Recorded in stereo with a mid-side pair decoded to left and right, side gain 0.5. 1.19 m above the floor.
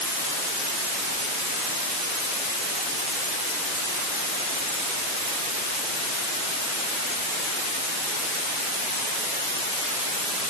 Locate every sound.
Only background noise.